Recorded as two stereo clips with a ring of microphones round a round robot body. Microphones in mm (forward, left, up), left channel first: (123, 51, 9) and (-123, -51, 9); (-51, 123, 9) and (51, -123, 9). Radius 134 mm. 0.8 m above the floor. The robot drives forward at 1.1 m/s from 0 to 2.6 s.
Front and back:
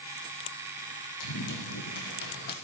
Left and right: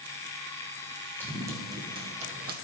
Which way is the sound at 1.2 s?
15° left.